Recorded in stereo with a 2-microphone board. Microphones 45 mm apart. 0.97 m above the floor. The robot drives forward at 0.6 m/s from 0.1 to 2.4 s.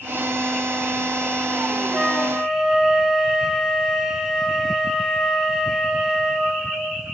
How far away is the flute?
About 0.5 m.